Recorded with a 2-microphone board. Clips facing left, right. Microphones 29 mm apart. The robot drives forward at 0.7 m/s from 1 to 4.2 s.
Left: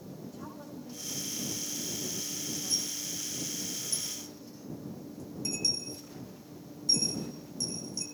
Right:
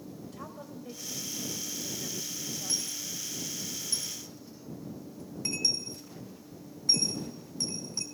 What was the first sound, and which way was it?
A woman speaking, 70° right (ahead or behind).